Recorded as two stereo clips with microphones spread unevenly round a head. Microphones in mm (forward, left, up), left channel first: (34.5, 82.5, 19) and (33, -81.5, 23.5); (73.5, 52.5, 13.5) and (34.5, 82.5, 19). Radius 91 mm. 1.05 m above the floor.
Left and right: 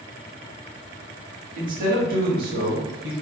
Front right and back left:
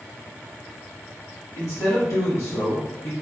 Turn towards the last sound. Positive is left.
turn(degrees=-85)